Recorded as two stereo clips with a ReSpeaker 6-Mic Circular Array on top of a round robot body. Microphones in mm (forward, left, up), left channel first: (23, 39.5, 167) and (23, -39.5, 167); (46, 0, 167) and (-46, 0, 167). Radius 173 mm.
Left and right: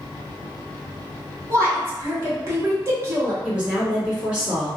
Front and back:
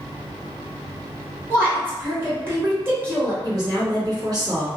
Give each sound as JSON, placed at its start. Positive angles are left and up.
{"t": 1.5, "sound": "a woman speaking", "azimuth_deg": -125, "distance_m": 1.7}
{"t": 3.4, "sound": "a woman speaking", "azimuth_deg": -160, "distance_m": 1.7}